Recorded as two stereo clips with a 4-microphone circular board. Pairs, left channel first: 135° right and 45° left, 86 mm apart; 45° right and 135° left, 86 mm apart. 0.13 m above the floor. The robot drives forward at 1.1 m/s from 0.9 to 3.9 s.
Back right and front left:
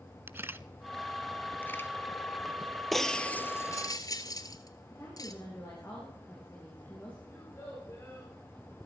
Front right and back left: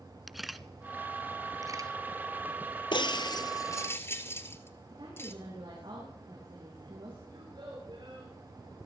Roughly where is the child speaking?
Behind.